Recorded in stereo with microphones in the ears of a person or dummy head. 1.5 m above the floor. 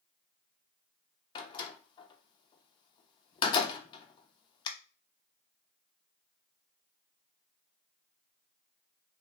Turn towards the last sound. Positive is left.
turn(degrees=25)  # may be behind; listen again after turning